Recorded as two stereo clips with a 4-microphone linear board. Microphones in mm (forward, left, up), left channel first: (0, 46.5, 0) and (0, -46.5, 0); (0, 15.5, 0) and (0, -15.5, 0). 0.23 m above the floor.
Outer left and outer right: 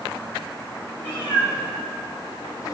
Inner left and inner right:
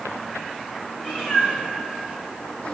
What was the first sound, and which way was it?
A cat meowing, 20° left (ahead or behind).